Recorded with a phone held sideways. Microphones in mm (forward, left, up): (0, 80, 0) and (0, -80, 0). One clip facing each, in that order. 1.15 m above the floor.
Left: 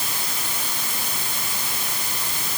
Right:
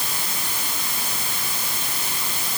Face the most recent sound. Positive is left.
No sound to turn to.